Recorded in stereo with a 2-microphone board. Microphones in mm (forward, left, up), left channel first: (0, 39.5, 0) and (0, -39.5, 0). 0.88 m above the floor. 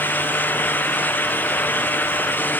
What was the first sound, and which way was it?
Only background noise.